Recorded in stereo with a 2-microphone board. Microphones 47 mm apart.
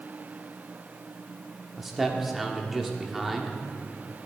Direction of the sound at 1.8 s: 5° right (ahead or behind).